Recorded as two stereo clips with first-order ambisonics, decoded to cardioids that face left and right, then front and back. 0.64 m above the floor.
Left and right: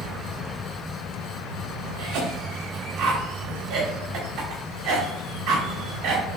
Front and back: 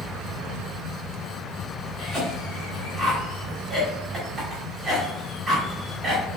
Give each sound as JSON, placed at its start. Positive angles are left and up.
{"t": 2.0, "sound": "a cough", "azimuth_deg": -110, "distance_m": 1.3}